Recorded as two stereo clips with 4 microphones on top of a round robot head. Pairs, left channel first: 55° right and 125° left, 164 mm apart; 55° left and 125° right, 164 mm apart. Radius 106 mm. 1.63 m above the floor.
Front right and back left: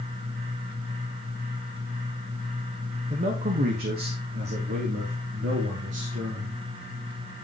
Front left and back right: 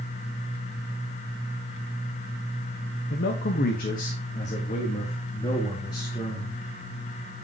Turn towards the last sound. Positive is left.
turn(degrees=125)